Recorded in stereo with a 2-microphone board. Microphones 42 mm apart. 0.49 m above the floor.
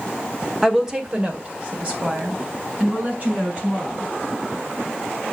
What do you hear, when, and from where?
0.6 s a woman speaking: 5° right (ahead or behind), 1.3 m; by 4.1 s 30° right (ahead or behind), 6 m